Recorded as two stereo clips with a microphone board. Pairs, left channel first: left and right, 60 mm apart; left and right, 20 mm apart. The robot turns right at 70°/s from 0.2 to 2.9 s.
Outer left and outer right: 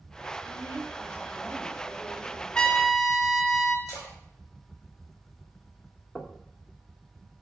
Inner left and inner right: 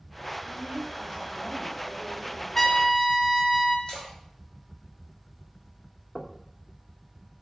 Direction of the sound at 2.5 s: 15° left (ahead or behind).